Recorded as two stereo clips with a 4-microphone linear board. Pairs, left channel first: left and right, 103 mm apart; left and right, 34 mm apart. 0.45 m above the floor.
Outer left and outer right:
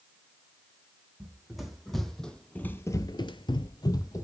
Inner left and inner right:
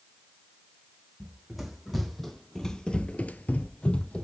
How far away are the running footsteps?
About 2 m.